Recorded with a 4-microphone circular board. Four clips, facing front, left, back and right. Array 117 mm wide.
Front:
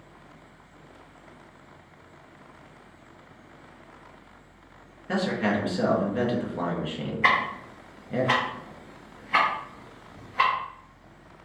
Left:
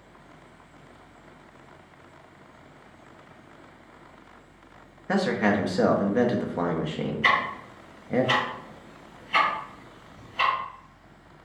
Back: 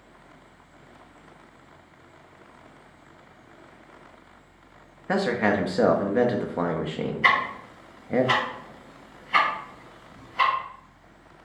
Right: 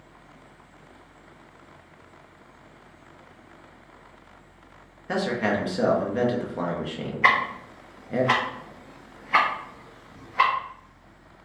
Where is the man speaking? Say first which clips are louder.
Left 2 dB, back 3 dB; 165° left, 0.6 m.